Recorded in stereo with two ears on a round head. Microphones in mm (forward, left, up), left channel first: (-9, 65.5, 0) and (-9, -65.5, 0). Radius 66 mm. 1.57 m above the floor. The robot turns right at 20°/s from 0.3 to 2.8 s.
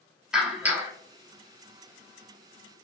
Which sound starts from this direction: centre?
A clap, at 0.3 s.